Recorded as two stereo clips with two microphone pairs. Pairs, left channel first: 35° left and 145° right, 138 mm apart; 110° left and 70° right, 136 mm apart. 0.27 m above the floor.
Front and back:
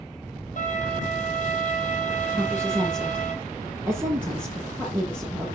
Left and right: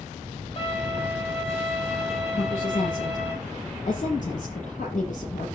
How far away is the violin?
About 3.5 m.